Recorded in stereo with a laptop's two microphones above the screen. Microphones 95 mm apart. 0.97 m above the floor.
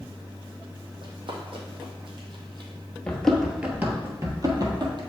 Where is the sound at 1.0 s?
65° right (ahead or behind), 2 m; by 2.7 s 50° right (ahead or behind), 1.5 m.